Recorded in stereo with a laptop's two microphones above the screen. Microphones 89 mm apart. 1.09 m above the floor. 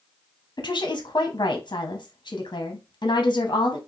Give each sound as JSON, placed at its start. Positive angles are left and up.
{"t": 0.6, "sound": "a woman speaking", "side_deg": 45, "distance_m": 0.9}